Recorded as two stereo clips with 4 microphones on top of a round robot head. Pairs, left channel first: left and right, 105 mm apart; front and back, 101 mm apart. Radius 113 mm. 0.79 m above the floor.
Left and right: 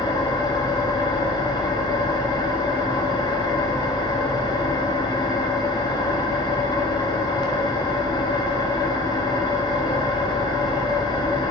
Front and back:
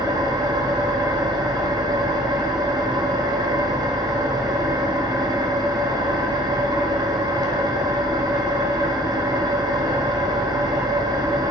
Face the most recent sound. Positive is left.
turn(degrees=135)